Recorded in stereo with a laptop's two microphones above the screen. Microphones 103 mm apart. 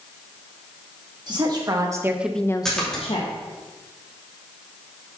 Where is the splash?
5° left (ahead or behind), 2.5 m.